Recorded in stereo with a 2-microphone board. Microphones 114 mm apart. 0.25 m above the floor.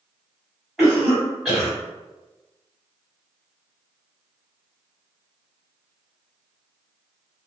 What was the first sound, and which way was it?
A cough, centre (ahead or behind).